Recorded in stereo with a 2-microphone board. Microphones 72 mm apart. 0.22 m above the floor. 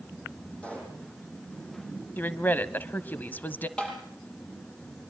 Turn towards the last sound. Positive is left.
turn(degrees=10)  # may be behind; listen again after turning